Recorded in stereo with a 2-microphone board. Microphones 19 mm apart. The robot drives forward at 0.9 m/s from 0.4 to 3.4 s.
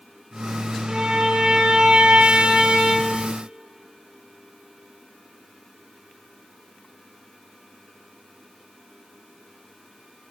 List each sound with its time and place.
0.9 s a violin: 45° right (ahead or behind), 2.5 m; by 3.1 s 70° right (ahead or behind), 1.8 m